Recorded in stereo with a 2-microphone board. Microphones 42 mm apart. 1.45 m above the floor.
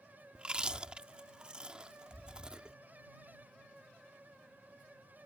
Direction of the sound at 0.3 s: 20° right (ahead or behind).